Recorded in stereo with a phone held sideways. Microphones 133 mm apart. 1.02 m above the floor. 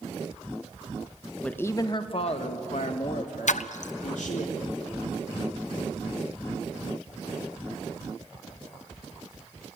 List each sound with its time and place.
1.4 s a man speaking: 10° left (ahead or behind), 1.0 m; by 4.5 s 75° left (ahead or behind), 3 m
3.5 s a splash: 70° left (ahead or behind), 0.6 m